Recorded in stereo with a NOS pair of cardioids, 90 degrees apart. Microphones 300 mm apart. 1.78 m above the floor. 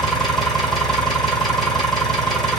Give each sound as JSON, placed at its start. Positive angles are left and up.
{"t": 0.0, "sound": "an engine running", "azimuth_deg": 0, "distance_m": 1.1}